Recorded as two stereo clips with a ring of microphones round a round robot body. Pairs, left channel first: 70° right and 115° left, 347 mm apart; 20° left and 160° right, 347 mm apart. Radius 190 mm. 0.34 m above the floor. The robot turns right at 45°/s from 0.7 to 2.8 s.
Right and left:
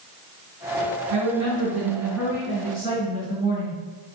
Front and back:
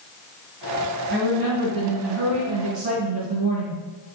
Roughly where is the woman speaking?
Behind left.